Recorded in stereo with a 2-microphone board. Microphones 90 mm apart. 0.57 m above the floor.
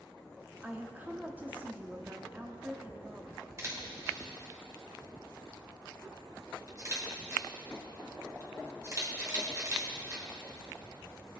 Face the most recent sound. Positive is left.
turn(degrees=-35)  # may be behind; listen again after turning